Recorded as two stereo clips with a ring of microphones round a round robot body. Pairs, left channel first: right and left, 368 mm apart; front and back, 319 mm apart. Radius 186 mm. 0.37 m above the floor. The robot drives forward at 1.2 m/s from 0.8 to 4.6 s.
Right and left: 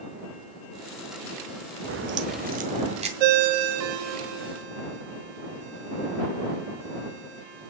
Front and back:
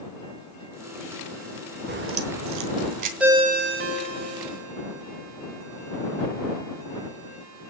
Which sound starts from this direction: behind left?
A crack, at 1.9 s.